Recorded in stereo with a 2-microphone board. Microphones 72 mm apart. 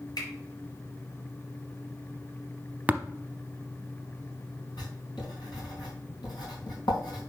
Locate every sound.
0.2 s a finger snap: 70° left (ahead or behind), 4 m
2.9 s tapping: 20° right (ahead or behind), 0.7 m
4.8 s writing: 90° left, 4.5 m